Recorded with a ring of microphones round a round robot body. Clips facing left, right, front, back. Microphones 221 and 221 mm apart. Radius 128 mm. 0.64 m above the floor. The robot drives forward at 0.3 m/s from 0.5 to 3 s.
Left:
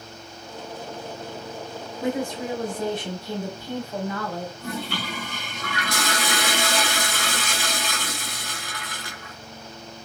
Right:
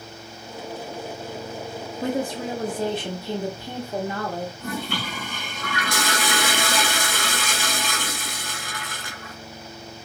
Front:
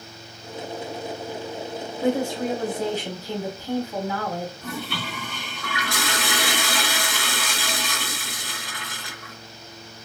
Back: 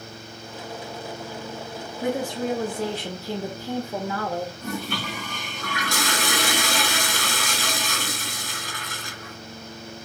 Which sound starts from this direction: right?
A woman speaking, at 2.0 s.